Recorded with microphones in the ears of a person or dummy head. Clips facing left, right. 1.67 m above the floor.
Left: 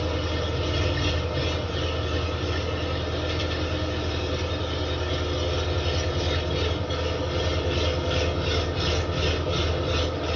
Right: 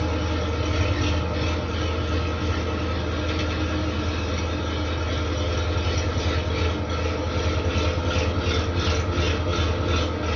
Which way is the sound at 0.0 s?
25° right (ahead or behind).